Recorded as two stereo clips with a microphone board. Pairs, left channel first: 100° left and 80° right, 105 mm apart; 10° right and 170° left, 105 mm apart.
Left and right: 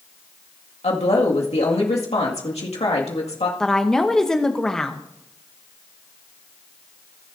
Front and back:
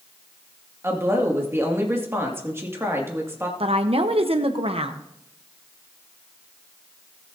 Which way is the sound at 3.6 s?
175° right.